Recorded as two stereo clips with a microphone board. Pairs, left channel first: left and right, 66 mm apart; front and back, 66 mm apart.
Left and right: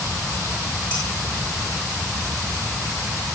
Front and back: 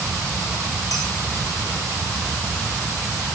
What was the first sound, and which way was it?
Dishes clattering, 20° left.